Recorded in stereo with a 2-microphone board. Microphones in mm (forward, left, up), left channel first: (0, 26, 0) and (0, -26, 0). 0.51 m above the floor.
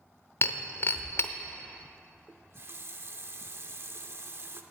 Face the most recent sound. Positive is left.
turn(degrees=-50)  # may be behind; listen again after turning